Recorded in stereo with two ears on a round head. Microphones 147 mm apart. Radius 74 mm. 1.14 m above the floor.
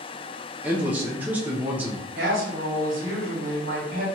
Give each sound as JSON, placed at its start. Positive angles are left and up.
{"t": 0.6, "sound": "a man speaking", "side_deg": -10, "distance_m": 0.5}
{"t": 2.1, "sound": "a woman speaking", "side_deg": -55, "distance_m": 1.4}